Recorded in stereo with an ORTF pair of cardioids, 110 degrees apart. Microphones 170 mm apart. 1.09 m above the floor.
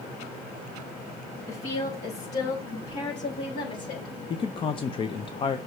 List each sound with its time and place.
1.5 s a woman speaking: 40° left, 4 m; by 4.2 s 45° left, 5.5 m
4.3 s a man speaking: 35° left, 0.8 m